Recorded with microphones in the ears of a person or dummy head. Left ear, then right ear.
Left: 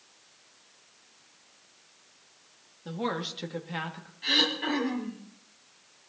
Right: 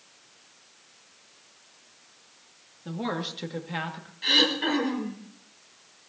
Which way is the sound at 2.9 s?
15° left (ahead or behind).